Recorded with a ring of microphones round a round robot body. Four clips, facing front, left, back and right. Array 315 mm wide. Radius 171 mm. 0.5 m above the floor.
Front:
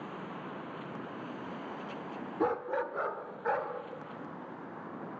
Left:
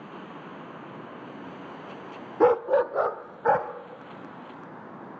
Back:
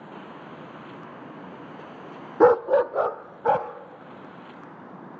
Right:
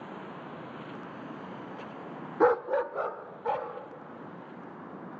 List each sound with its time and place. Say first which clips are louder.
2.4 s a dog barking: left 4 dB, back 15 dB; 165° left, 0.6 m; by 3.7 s 135° left, 1.6 m